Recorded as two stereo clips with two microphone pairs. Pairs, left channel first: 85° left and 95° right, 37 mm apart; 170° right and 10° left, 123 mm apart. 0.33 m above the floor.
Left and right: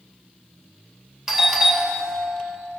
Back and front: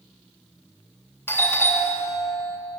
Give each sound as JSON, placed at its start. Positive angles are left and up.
{"t": 1.3, "sound": "a doorbell", "azimuth_deg": -140, "distance_m": 2.0}